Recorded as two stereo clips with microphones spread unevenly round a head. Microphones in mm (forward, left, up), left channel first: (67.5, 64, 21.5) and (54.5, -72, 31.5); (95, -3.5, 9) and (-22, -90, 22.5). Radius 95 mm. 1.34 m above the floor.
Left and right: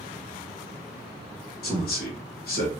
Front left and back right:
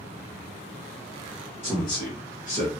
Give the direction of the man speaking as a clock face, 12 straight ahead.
9 o'clock.